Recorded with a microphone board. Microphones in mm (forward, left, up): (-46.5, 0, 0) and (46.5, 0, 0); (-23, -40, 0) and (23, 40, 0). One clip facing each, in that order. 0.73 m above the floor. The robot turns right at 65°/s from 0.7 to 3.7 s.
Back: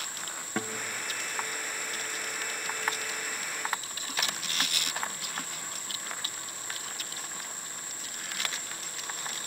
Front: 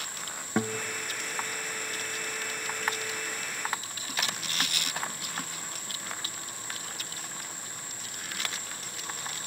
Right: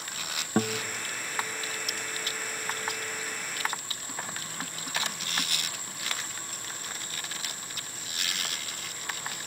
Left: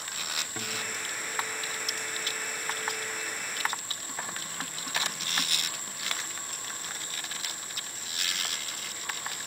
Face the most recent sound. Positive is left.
turn(degrees=115)